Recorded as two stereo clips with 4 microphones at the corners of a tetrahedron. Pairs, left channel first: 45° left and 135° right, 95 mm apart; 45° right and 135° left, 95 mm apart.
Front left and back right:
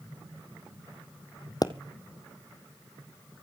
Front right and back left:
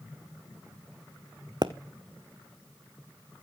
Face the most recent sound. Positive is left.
turn(degrees=95)